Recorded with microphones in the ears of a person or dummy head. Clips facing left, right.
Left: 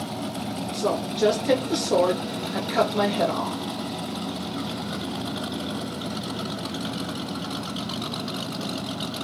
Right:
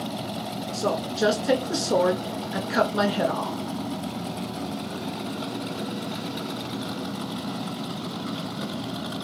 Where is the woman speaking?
15° right (ahead or behind), 1.6 m.